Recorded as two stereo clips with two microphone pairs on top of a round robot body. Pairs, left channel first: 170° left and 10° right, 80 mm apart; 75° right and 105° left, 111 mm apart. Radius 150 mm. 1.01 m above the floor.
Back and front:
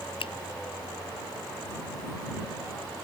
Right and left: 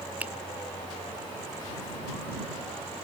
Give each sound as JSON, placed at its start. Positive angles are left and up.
{"t": 0.2, "sound": "a finger snap", "azimuth_deg": -175}